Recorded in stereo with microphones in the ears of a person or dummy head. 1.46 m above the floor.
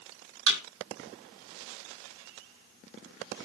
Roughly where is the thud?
Right.